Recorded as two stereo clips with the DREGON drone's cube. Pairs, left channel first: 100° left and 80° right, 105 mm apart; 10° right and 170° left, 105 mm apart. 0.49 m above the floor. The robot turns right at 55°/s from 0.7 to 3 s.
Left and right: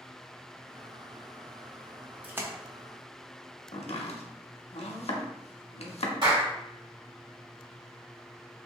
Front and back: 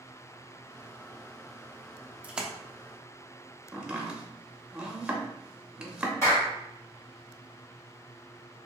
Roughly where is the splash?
Behind right.